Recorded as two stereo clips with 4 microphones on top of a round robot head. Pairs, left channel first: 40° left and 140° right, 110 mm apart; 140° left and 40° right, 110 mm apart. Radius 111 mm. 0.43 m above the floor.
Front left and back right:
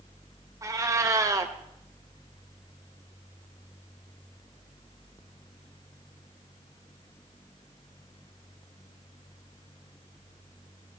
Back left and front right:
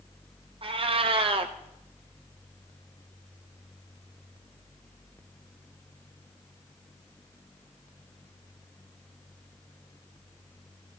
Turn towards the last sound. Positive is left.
turn(degrees=-75)